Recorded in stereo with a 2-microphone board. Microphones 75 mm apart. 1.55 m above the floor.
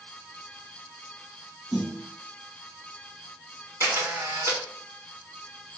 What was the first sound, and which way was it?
A snare drum, 5° right (ahead or behind).